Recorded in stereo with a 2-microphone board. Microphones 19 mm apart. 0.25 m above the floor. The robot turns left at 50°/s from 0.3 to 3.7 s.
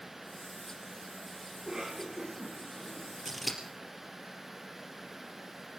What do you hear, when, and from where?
1.6 s a cough: 40° right (ahead or behind), 1.9 m; by 3.5 s 45° left (ahead or behind), 1.9 m
3.2 s scissors: 5° right (ahead or behind), 4 m; by 3.6 s 10° left (ahead or behind), 4 m